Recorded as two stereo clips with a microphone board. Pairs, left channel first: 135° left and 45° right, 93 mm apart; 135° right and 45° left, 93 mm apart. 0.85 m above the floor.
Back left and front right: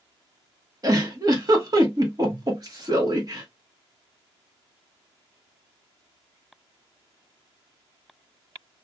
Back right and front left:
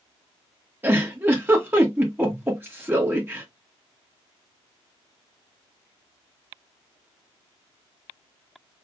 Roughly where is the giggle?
Ahead.